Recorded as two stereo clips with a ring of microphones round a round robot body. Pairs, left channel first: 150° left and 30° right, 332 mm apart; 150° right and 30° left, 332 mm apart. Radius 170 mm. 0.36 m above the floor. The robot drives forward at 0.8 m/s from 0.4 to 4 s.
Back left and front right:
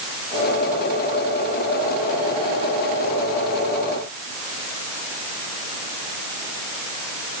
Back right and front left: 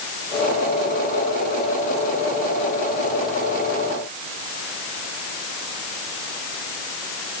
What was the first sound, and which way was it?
Only background noise.